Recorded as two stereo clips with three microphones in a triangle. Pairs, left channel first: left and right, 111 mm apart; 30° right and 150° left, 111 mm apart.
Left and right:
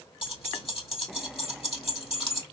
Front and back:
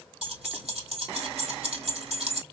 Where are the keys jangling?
125° left, 2.5 m.